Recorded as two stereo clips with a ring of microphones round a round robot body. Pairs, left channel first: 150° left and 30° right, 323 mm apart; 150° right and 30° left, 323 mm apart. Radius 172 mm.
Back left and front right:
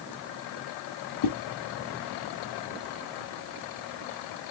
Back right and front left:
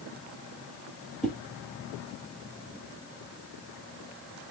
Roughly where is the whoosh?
Behind left.